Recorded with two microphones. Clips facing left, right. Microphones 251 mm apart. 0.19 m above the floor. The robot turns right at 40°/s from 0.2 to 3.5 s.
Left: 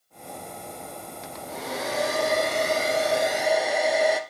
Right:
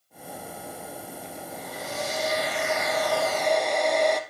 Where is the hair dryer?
85° left, 2.5 m; by 4.2 s 175° left, 2.5 m.